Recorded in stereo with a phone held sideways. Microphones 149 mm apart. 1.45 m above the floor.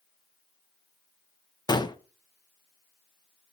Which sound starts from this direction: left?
A gunshot, at 1.7 s.